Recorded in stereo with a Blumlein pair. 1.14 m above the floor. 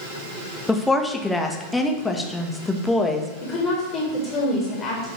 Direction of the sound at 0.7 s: 5° left.